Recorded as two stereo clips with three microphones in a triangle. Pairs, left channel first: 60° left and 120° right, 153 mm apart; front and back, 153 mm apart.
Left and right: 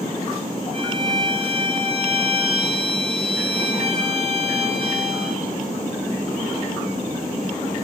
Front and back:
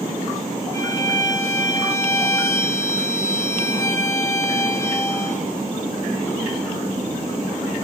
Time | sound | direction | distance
0.7 | a violin | 70° right | 6 m